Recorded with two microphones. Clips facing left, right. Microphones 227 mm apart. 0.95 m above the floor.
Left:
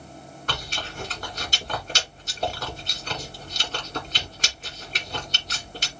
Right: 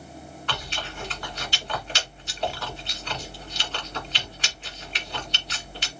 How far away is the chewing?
About 1.5 m.